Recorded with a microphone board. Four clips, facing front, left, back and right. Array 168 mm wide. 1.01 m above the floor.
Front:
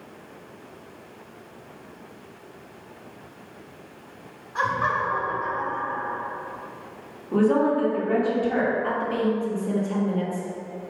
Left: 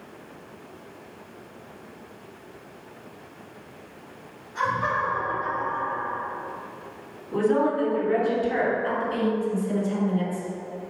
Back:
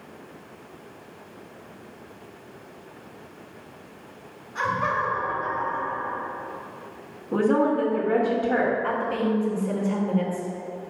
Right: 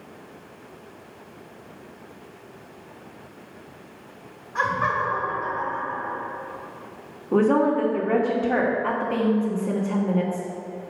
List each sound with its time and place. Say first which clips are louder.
4.5 s laughter: right 1 dB, front 1 dB; 50° right, 2.5 m; by 6.2 s 35° right, 3 m
7.3 s a woman speaking: right 3 dB, front 1 dB; 100° right, 2 m
8.8 s a woman speaking: right 2 dB, front 1 dB; 80° right, 1.6 m